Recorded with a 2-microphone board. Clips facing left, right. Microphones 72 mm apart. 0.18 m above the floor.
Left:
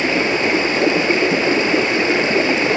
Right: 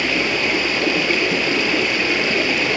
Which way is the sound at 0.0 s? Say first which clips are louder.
Left 3 dB; 25° left (ahead or behind).